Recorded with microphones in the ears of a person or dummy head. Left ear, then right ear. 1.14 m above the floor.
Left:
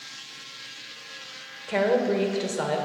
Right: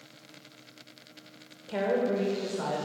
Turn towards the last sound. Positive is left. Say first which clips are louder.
# left 5 dB
turn(degrees=70)  # may be behind; listen again after turning